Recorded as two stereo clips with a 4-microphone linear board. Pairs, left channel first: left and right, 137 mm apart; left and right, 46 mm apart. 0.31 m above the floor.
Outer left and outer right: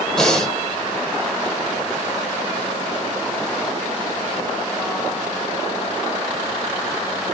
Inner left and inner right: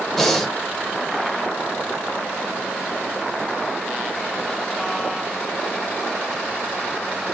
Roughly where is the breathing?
Centre.